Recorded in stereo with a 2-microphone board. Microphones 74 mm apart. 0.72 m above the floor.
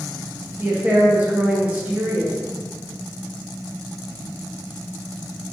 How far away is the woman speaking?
About 0.9 m.